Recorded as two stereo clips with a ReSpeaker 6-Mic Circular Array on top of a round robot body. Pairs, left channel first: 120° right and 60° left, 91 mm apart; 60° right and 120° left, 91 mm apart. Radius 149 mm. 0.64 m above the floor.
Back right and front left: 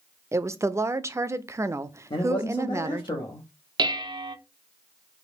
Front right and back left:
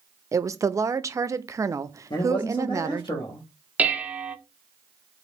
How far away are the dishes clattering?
About 0.5 m.